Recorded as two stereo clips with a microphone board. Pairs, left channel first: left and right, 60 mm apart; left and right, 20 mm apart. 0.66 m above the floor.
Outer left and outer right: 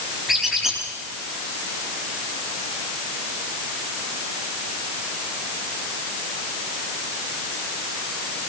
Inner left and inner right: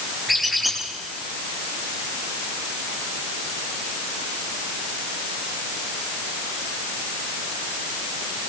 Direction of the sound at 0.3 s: 5° right (ahead or behind).